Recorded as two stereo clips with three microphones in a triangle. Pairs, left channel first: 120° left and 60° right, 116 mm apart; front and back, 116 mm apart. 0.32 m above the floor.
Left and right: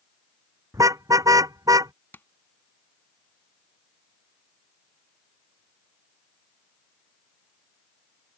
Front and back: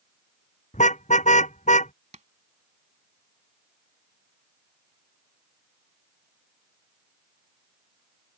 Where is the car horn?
5° left; by 1.9 s straight ahead.